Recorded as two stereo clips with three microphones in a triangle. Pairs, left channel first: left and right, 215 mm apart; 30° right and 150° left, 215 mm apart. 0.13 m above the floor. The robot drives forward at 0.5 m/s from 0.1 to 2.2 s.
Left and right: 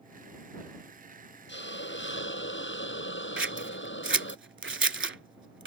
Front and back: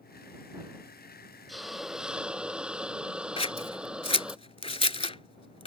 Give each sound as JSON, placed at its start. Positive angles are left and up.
{"t": 1.5, "sound": "a hiss", "azimuth_deg": 60}
{"t": 3.4, "sound": "scissors", "azimuth_deg": -90}